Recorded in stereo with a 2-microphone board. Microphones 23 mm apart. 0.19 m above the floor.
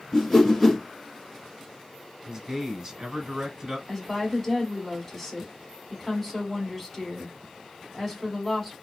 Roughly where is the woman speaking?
Centre.